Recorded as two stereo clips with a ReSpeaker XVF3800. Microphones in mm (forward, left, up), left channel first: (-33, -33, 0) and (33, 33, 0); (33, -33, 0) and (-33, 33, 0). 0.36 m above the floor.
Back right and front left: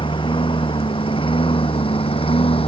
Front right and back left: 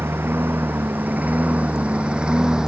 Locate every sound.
0.0 s a lawn mower: 160° right; by 2.7 s 145° right